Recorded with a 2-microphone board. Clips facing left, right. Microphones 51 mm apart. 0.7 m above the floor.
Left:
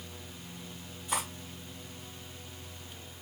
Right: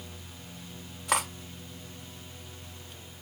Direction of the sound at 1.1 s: 70° right (ahead or behind).